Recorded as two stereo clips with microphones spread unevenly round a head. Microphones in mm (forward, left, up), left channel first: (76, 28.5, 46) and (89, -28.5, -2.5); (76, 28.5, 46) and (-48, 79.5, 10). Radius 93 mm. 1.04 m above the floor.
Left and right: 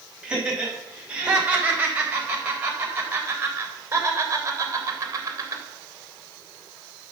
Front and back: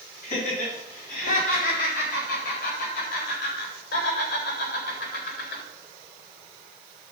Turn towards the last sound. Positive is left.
turn(degrees=-50)